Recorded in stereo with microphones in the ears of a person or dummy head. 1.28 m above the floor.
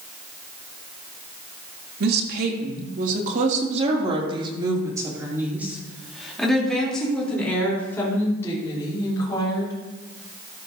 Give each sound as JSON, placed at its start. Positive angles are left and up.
{"t": 2.0, "sound": "a woman speaking", "side_deg": -65, "distance_m": 3.0}